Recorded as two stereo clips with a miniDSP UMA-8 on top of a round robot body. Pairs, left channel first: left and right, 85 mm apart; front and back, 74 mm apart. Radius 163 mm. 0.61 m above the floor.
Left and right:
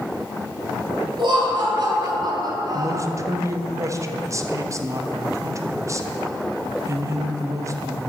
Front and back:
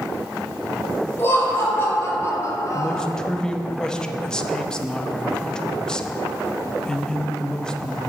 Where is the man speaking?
75° right, 0.9 m.